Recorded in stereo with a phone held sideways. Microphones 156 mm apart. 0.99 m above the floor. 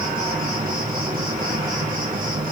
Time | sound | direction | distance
0.0 | an insect | 70° right (ahead or behind) | 2.5 m